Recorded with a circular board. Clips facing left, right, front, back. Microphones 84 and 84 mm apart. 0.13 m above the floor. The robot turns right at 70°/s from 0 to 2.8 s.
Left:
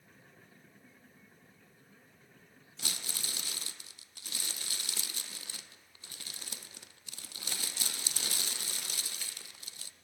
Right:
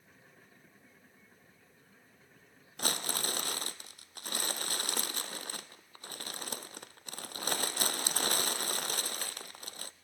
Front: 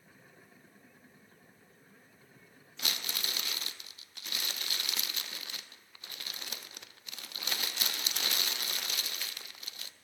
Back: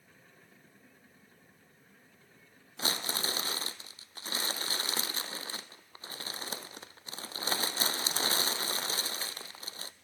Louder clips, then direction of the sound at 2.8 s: Right 9 dB, back 5 dB; 125° right.